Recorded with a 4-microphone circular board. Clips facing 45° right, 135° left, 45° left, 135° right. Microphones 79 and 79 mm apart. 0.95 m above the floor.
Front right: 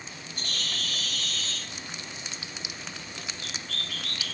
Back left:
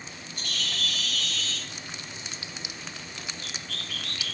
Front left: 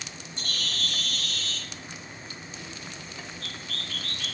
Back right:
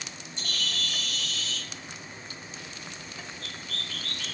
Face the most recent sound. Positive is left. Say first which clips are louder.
# back left 2 dB, even
turn(degrees=5)